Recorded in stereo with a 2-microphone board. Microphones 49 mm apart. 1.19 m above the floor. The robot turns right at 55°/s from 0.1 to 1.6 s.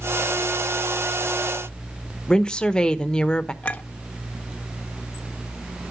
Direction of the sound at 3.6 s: 25° left (ahead or behind).